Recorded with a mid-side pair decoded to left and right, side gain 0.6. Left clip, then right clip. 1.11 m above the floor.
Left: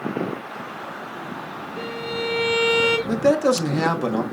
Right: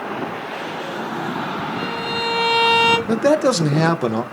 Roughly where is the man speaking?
Ahead right.